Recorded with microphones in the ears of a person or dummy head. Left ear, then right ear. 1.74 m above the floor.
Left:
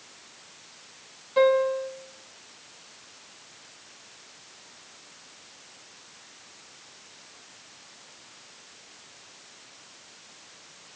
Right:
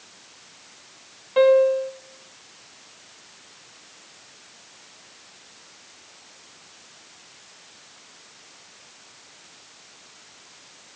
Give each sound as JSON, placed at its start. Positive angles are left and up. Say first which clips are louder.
{"t": 1.4, "sound": "a piano", "louder": "right 5 dB", "side_deg": -30, "distance_m": 1.8}